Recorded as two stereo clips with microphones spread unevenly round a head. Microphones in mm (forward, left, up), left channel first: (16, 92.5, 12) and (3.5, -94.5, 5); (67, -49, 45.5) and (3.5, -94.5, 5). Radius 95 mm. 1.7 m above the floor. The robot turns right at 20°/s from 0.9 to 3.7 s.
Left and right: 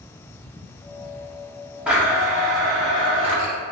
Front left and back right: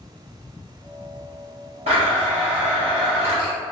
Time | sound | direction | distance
1.9 | a blender | straight behind | 0.8 m